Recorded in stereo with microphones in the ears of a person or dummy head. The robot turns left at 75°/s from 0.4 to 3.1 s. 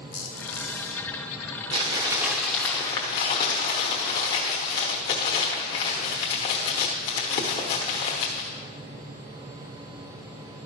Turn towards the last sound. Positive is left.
turn(degrees=20)  # may be behind; listen again after turning